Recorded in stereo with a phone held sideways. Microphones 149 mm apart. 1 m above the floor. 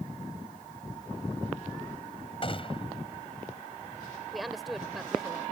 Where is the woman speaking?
Centre (ahead or behind).